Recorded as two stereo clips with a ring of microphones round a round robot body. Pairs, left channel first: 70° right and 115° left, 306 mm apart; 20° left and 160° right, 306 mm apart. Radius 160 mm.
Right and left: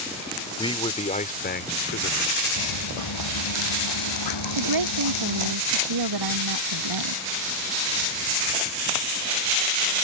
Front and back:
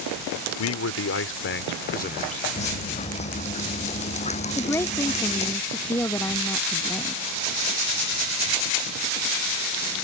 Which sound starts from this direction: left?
A woman speaking, at 4.6 s.